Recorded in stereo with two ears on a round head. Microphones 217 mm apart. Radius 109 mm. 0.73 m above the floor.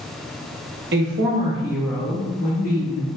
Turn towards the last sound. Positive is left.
turn(degrees=40)  # may be behind; listen again after turning